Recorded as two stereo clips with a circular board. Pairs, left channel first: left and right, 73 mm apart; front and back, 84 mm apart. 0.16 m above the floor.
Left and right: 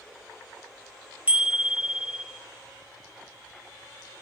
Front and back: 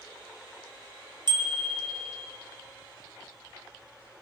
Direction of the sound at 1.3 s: 160° right.